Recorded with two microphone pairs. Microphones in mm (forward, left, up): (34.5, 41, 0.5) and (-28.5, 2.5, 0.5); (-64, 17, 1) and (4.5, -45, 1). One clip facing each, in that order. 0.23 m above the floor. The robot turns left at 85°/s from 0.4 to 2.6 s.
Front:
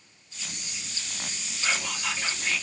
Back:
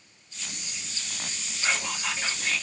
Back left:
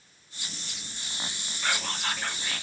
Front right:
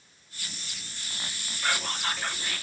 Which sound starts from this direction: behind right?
Whispering, at 1.6 s.